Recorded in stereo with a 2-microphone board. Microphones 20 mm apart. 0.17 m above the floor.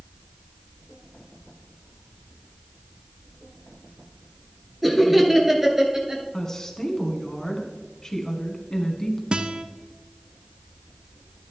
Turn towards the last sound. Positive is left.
turn(degrees=-55)  # may be behind; listen again after turning